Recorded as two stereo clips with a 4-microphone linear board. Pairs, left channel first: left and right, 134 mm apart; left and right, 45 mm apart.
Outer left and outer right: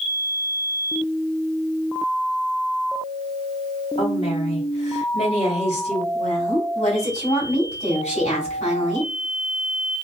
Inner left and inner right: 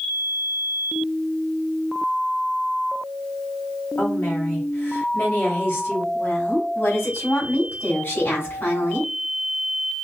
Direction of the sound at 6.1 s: 55° left (ahead or behind).